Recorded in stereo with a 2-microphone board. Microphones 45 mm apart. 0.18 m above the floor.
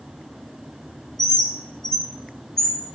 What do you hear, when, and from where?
1.2 s a bird: 10° left (ahead or behind), 0.5 m